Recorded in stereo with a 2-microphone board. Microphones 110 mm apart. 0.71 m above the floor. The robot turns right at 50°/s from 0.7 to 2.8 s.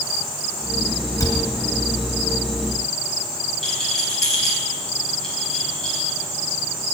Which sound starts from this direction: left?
A cupboard door, at 1.2 s.